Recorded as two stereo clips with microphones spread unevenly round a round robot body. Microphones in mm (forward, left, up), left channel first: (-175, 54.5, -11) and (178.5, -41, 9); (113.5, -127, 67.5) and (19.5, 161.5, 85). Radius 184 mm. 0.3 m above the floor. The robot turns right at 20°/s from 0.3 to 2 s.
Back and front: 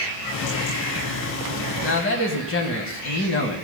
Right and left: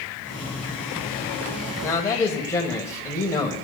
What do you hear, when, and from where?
1.8 s a man speaking: 155° right, 1.4 m; by 3.6 s 150° right, 1.4 m